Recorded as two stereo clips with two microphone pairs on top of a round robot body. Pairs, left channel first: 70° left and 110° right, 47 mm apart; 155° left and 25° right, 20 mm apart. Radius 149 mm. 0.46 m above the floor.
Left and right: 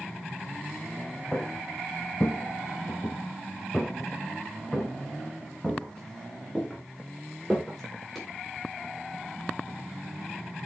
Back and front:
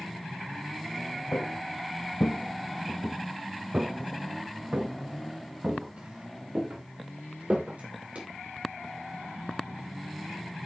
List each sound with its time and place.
1.3 s footsteps: 140° left, 2.5 m; by 8.2 s 25° right, 8 m